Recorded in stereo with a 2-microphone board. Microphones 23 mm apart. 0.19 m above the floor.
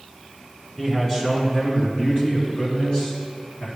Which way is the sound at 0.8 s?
15° left (ahead or behind).